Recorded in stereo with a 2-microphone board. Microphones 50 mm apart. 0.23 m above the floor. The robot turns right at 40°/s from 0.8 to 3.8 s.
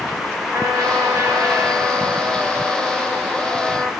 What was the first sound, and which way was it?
A trumpet, 95° right.